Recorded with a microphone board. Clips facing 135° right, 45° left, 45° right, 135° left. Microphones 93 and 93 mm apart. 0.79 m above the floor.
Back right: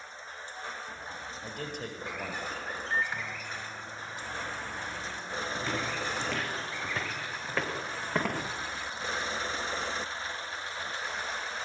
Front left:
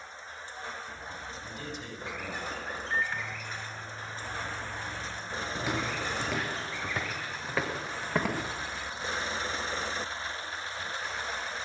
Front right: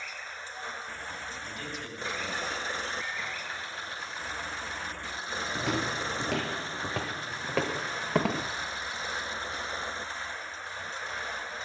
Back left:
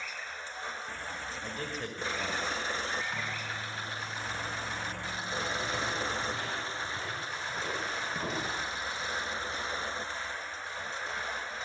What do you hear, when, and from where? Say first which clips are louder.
1.4 s a man speaking: back right 2 dB, back left 2 dB; 170° right, 4.5 m; by 2.4 s straight behind, 4.5 m
2.9 s a microwave: even, back left 1 dB; 145° left, 4 m
5.5 s footsteps: front left 2 dB, front right 2 dB; 35° right, 2.5 m; by 8.4 s 45° right, 5 m